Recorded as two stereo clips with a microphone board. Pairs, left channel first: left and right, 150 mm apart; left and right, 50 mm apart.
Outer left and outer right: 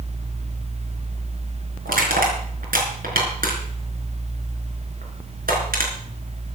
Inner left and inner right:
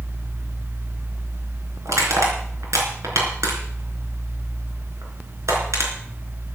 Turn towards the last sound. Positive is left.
turn(degrees=-85)